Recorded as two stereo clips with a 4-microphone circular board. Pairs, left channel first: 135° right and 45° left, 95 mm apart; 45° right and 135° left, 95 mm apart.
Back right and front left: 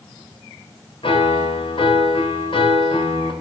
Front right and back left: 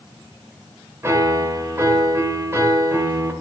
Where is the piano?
160° right, 1.4 m.